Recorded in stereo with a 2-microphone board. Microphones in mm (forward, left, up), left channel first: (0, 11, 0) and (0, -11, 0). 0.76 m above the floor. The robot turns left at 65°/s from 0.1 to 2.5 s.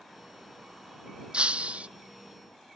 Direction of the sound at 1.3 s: 60° right.